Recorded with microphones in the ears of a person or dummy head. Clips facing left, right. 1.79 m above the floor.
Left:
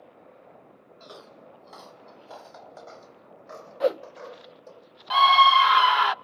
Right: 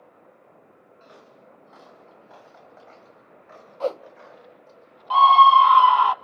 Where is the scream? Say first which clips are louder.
Right 5 dB; 25° left (ahead or behind), 0.6 m.